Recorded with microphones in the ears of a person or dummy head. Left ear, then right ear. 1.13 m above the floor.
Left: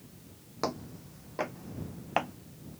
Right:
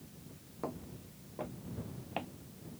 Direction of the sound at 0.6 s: 65° left (ahead or behind).